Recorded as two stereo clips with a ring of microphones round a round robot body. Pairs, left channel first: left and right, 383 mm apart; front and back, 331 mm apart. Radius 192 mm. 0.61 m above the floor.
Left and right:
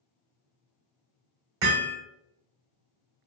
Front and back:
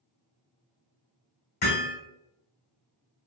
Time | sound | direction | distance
1.6 | hammering | 65° right | 1.7 m